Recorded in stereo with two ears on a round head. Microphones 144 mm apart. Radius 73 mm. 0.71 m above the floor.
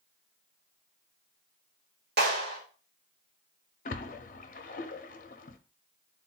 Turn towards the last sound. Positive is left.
turn(degrees=55)  # may be behind; listen again after turning